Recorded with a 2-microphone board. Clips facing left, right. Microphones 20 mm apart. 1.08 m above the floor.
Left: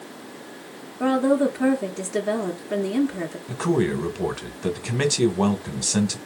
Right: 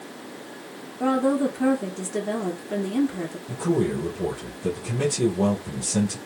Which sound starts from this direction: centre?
A woman speaking, at 1.0 s.